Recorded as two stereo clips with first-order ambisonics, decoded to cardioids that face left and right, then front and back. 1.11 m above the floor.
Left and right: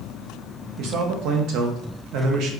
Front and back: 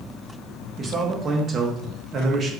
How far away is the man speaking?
About 0.7 m.